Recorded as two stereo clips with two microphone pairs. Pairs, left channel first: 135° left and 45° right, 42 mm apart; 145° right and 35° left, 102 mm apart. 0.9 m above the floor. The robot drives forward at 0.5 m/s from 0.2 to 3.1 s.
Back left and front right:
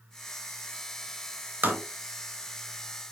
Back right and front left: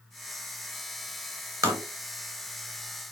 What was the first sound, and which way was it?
Tapping, 20° right.